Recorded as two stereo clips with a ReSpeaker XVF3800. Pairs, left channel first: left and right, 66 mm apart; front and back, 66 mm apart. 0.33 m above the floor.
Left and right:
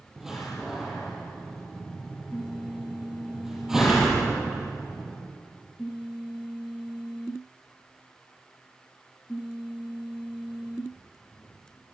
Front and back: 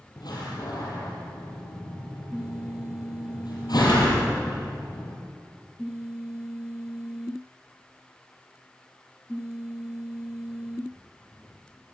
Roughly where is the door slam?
Ahead.